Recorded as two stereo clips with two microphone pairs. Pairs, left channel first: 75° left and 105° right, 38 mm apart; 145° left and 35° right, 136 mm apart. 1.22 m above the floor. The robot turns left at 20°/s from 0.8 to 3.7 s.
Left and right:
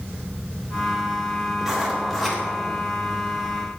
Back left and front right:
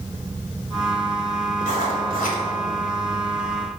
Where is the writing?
170° left, 3.5 m; by 2.4 s 155° left, 3.5 m.